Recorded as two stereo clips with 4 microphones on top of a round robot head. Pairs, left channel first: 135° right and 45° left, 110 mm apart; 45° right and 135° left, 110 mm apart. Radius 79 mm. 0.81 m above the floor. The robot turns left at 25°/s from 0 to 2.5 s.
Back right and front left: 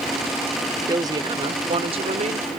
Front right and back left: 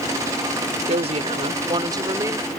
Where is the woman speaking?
105° left; by 2.5 s 65° left.